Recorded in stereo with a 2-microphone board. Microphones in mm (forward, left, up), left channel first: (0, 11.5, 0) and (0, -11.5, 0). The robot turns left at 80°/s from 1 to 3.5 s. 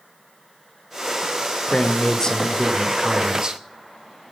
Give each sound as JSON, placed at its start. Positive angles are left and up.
{"t": 1.7, "sound": "a man speaking", "azimuth_deg": 90, "distance_m": 1.0}